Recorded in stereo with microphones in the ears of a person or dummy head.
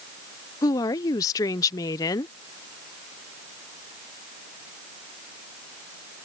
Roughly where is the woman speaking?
Centre.